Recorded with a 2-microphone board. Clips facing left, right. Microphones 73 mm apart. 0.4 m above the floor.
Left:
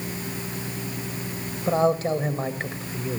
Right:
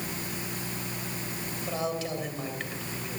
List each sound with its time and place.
1.7 s a man speaking: 40° left (ahead or behind), 1.7 m